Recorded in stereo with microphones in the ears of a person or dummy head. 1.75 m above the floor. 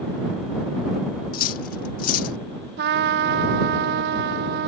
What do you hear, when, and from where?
1.3 s cutlery clinking: 40° left (ahead or behind)
2.8 s a trumpet: 55° right (ahead or behind)